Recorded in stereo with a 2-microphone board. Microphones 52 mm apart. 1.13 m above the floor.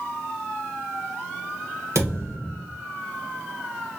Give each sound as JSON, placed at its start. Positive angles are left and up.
{"t": 1.9, "sound": "a thud", "side_deg": -60, "distance_m": 2.5}